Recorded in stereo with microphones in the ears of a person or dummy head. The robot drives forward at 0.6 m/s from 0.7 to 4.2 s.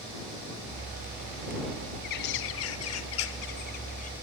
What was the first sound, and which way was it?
A bird, 55° left (ahead or behind).